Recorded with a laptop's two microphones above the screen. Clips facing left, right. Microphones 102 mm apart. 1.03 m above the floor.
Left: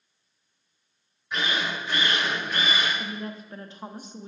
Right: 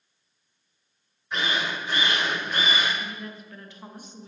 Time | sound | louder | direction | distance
1.3 | a drill | even | 40° right (ahead or behind) | 2.5 m
3.0 | a woman speaking | left 2 dB | 30° left (ahead or behind) | 0.7 m